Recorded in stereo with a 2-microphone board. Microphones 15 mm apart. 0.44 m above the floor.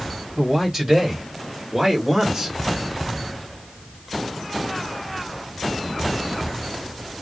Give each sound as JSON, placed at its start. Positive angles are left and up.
{"t": 0.4, "sound": "a man speaking", "side_deg": -15, "distance_m": 1.7}